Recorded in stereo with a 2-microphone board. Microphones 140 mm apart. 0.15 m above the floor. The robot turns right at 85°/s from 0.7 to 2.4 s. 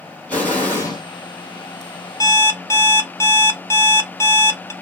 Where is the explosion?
10° left (ahead or behind), 2.5 m; by 1.0 s 40° left (ahead or behind), 2.5 m.